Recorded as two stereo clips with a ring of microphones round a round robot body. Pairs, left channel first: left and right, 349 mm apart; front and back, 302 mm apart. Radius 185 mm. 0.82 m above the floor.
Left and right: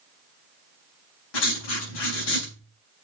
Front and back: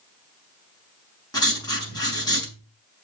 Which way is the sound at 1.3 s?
80° left.